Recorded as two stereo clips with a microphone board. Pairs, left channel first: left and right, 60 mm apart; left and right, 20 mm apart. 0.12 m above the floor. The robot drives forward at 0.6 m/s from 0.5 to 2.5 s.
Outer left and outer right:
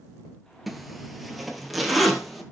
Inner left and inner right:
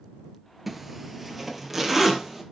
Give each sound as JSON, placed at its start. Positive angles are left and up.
{"t": 0.7, "sound": "a zipper", "side_deg": 0, "distance_m": 1.4}